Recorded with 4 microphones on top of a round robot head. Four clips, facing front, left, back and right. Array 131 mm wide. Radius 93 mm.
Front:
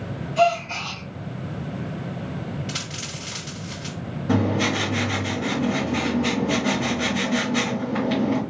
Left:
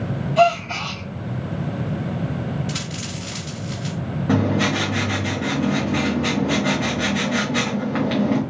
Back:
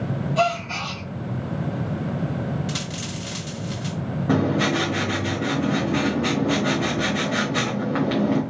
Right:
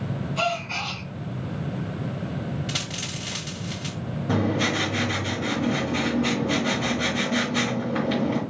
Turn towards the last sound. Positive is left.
turn(degrees=145)